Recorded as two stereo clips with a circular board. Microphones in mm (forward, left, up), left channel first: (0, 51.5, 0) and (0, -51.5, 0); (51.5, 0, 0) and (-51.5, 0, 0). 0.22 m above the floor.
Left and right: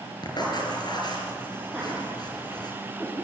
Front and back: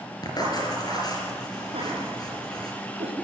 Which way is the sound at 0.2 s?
50° left.